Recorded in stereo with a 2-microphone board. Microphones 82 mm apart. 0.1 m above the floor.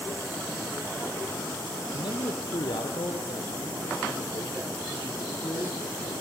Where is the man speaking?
60° left (ahead or behind), 2.5 m; by 6.1 s 65° left (ahead or behind), 7 m.